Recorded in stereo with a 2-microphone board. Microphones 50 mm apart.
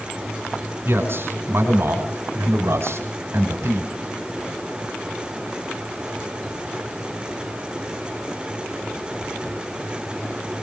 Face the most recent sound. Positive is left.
turn(degrees=-65)  # may be behind; listen again after turning